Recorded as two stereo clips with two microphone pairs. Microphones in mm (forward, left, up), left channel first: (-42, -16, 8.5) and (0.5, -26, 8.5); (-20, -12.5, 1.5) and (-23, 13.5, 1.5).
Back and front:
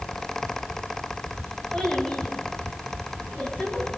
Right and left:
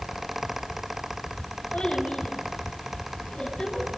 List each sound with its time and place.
1.7 s a child speaking: 120° right, 6.5 m; by 3.9 s 135° right, 7 m